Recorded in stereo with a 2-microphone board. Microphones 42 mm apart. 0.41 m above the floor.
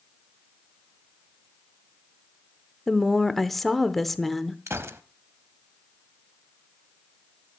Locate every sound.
2.9 s a woman speaking: 5° left (ahead or behind), 0.8 m
4.7 s a gunshot: 80° right, 0.8 m